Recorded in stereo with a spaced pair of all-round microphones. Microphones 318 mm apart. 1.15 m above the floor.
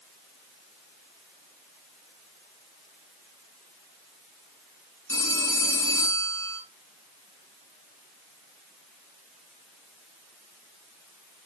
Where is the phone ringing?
10° left (ahead or behind), 7.5 m.